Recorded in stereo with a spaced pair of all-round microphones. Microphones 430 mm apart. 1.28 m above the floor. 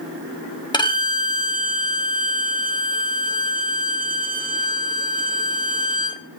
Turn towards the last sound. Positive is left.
turn(degrees=10)  # may be behind; listen again after turning